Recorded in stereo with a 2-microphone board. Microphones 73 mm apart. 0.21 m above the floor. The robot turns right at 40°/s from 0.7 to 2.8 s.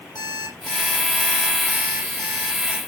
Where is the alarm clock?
115° left, 4 m; by 2.8 s 160° right, 4 m.